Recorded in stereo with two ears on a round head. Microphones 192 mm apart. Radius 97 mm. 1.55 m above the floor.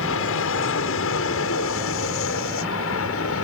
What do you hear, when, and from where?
0.0 s an aircraft: 70° left (ahead or behind); by 3.5 s 75° left (ahead or behind)